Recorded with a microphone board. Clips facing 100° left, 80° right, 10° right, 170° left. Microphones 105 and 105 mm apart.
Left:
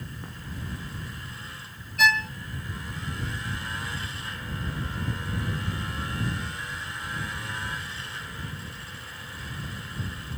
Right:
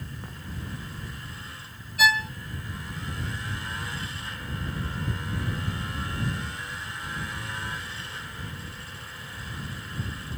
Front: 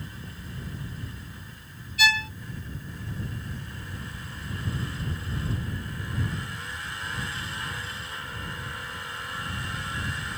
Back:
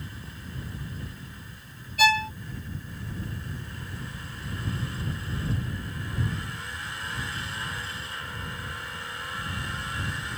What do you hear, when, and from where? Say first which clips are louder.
2.0 s a violin: even, back 4 dB; 165° right